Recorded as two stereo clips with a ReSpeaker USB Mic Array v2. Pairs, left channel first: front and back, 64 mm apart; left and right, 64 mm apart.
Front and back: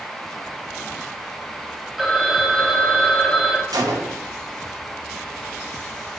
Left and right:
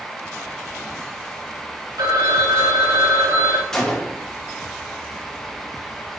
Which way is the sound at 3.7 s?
170° left.